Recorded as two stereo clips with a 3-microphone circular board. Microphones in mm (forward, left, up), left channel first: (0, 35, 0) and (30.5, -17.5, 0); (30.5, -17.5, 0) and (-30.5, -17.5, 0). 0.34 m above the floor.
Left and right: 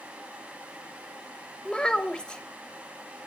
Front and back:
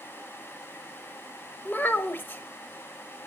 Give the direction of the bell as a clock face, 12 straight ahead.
I don't hear a bell.